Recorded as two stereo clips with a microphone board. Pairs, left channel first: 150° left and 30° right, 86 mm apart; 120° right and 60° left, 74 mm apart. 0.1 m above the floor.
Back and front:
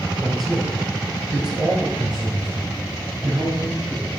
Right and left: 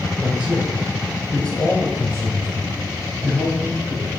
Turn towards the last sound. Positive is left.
turn(degrees=-110)